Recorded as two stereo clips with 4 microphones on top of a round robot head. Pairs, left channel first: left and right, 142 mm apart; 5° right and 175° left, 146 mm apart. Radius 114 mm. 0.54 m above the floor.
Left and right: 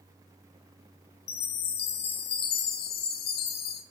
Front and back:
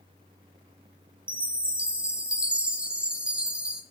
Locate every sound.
1.3 s a chime: 90° left, 0.8 m